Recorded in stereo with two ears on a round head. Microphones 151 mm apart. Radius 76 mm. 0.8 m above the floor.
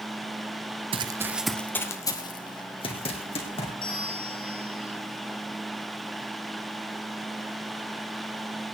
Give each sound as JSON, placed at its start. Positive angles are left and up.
{"t": 0.9, "sound": "running footsteps", "side_deg": -35, "distance_m": 1.0}
{"t": 3.8, "sound": "a bell", "side_deg": 30, "distance_m": 3.0}